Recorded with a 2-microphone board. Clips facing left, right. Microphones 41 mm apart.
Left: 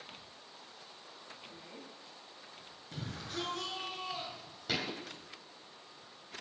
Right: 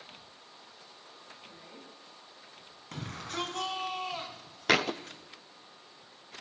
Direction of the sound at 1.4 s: 10° right (ahead or behind).